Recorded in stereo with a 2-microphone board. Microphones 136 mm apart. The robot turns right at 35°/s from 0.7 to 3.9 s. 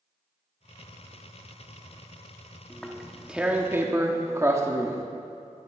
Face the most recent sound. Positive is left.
turn(degrees=-20)  # may be behind; listen again after turning